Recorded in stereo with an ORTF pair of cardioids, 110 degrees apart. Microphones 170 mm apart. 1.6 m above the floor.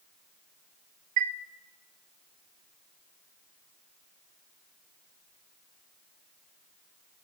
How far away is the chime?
About 0.6 m.